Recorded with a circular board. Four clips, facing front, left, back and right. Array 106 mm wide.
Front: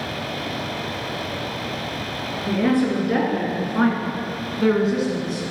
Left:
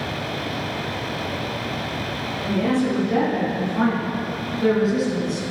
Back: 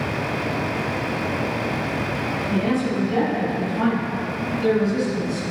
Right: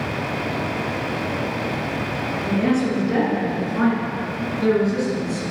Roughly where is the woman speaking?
Ahead.